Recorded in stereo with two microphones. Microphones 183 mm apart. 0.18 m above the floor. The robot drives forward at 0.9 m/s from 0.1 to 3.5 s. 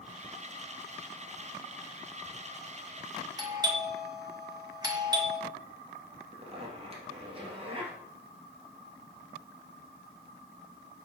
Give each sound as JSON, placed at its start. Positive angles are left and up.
{"t": 3.4, "sound": "a doorbell", "side_deg": -20, "distance_m": 1.5}
{"t": 6.3, "sound": "a zipper", "side_deg": -30, "distance_m": 2.5}